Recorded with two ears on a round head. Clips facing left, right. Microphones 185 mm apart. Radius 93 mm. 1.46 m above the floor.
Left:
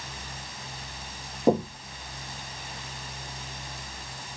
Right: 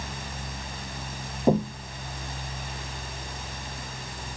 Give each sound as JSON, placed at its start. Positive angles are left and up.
{"t": 1.5, "sound": "knocking", "side_deg": 5, "distance_m": 1.5}